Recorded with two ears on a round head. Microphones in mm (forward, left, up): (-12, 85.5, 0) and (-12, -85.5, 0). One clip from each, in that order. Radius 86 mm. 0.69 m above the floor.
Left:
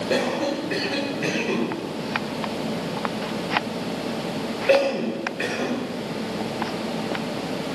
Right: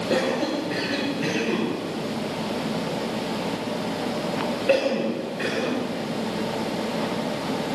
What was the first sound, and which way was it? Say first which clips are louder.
A cough: even; 25° left (ahead or behind).